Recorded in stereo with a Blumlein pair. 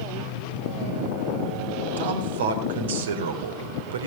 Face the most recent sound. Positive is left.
turn(degrees=-60)